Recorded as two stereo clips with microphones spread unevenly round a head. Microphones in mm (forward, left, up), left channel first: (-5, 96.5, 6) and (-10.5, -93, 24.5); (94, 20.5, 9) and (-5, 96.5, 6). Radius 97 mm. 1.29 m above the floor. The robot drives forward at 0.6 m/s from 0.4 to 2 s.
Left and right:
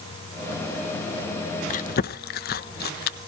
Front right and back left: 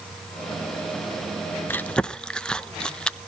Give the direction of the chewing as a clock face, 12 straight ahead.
11 o'clock.